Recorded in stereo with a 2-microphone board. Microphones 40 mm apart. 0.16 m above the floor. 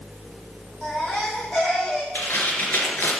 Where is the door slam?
No door slam in this recording.